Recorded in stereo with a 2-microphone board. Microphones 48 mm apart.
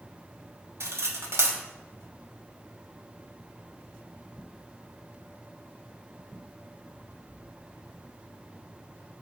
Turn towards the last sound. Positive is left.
turn(degrees=-65)  # may be behind; listen again after turning